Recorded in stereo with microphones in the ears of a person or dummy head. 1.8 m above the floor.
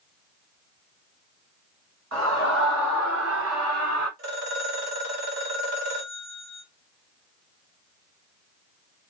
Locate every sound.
2.1 s a scream: 80° right, 2 m; by 4.1 s 50° right (ahead or behind), 3.5 m
4.2 s a phone ringing: 45° right (ahead or behind), 1.9 m